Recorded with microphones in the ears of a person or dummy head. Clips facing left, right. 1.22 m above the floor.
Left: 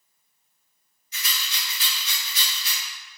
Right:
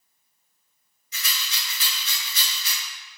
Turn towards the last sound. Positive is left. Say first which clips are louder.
# even
turn(degrees=-70)  # may be behind; listen again after turning